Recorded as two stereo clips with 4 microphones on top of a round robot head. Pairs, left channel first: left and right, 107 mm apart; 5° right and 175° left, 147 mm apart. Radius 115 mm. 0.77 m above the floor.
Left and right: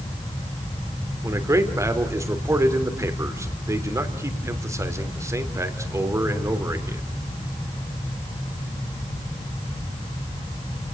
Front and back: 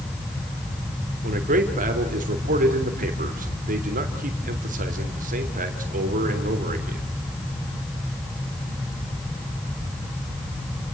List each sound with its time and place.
1.2 s a man speaking: 155° right, 3 m